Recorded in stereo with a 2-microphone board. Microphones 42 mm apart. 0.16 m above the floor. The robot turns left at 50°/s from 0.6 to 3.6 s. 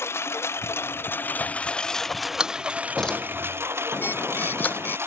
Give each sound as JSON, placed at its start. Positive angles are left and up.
{"t": 0.0, "sound": "a lawn mower", "side_deg": 80}
{"t": 2.4, "sound": "a door slam", "side_deg": -20}
{"t": 3.9, "sound": "a bird", "side_deg": 50}